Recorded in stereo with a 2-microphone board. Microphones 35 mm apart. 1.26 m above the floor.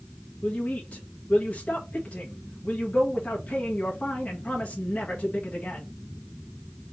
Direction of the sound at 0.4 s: 45° left (ahead or behind).